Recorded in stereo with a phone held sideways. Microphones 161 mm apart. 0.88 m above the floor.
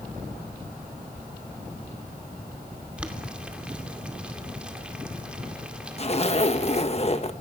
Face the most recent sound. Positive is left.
turn(degrees=40)  # may be behind; listen again after turning